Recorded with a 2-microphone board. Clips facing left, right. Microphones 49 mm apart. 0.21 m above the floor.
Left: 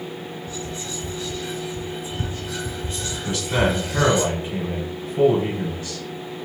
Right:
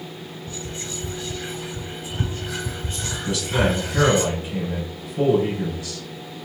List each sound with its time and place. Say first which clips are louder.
0.5 s whispering: even; 25° right (ahead or behind), 1.3 m
3.2 s a man speaking: even; 35° left (ahead or behind), 1.7 m